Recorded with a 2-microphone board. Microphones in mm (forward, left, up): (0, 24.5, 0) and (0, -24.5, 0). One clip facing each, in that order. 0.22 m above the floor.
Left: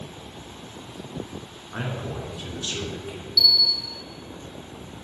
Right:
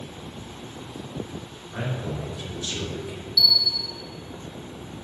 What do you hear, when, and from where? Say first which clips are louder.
1.7 s a man speaking: right 1 dB; 45° left (ahead or behind), 2.5 m
3.4 s a bell: left 1 dB; 60° left (ahead or behind), 0.8 m